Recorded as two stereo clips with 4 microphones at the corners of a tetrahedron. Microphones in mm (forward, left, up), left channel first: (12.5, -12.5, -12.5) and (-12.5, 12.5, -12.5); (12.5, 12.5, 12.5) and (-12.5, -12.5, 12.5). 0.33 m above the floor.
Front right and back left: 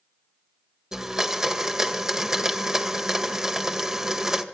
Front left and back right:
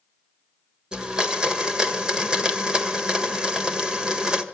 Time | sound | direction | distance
0.9 | a blender | 165° right | 1.6 m